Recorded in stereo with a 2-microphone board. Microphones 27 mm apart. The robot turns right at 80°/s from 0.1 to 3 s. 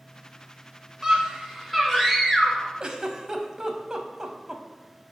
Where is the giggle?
35° right (ahead or behind), 0.6 m; by 4.6 s 20° right (ahead or behind), 0.6 m.